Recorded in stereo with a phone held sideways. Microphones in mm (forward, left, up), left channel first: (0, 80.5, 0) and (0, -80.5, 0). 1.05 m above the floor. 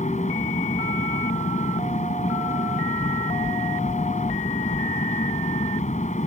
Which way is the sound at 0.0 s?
45° left (ahead or behind).